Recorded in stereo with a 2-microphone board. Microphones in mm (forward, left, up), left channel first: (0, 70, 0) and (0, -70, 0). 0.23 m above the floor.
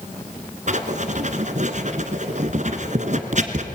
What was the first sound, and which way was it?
Writing, 55° right (ahead or behind).